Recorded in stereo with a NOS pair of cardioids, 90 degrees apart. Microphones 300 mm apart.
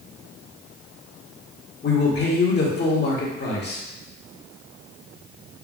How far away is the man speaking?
About 1.8 m.